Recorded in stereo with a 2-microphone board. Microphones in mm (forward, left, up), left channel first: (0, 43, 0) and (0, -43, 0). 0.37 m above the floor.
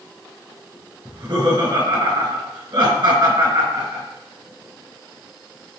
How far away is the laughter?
About 4.5 m.